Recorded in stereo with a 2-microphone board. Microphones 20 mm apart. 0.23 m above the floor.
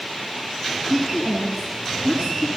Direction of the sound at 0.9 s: 55° right (ahead or behind).